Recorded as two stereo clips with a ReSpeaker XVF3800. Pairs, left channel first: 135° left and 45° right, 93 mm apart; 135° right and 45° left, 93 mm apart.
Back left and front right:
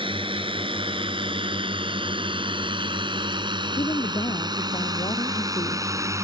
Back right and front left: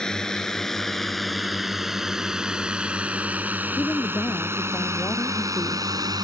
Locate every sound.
0.0 s a drone: 50° right; by 6.2 s 5° left
3.8 s a woman speaking: 165° left